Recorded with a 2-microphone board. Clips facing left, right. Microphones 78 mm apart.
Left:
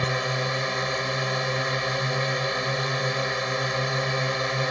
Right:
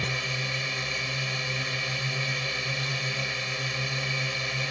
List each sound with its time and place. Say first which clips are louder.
0.0 s a drone: left 6 dB; 45° left (ahead or behind)